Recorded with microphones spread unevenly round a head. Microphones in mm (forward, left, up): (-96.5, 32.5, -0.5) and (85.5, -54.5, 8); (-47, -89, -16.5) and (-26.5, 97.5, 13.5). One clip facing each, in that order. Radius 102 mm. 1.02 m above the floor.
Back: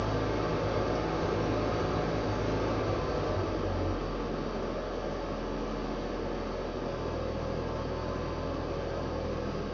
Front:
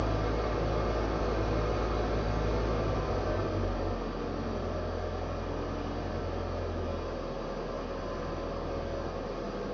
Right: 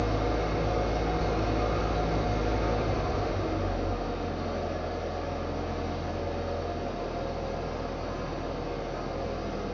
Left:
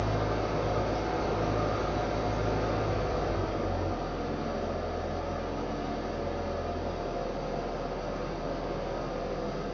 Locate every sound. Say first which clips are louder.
0.0 s an engine running: back 1 dB, right 2 dB; 175° left, 0.8 m